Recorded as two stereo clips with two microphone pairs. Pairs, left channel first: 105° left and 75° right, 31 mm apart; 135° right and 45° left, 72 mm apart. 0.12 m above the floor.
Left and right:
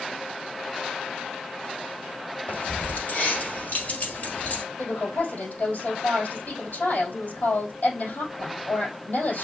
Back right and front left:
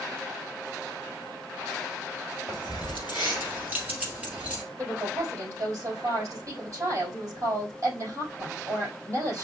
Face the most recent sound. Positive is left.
turn(degrees=90)